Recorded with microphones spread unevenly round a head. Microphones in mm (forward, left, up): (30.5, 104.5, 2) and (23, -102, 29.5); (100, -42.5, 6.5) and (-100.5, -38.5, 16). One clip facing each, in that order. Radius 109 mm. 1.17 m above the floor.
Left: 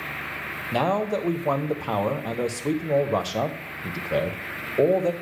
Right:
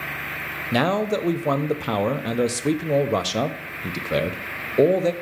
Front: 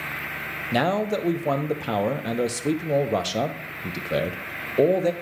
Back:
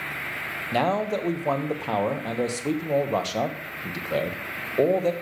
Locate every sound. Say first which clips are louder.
0.7 s a man speaking: right 3 dB, front 1 dB; 45° right, 0.5 m